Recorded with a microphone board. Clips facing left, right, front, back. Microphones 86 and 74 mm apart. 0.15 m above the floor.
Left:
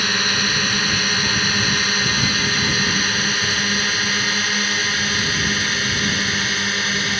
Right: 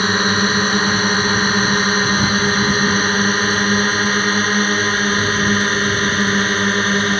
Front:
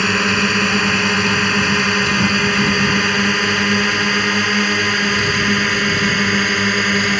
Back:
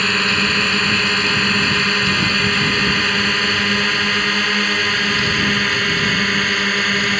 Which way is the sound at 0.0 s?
75° right.